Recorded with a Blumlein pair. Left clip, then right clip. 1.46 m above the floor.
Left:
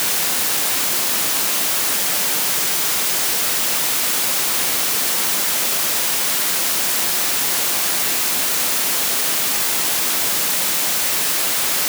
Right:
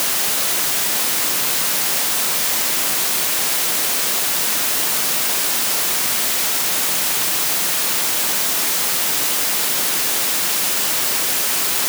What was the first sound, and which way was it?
Only background noise.